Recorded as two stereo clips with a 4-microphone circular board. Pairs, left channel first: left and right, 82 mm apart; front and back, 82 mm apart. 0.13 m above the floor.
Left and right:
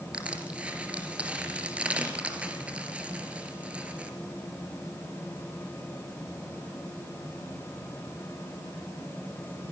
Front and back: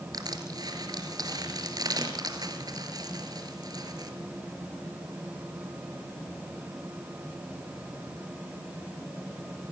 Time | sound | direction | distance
0.1 | crushing | 165° right | 3 m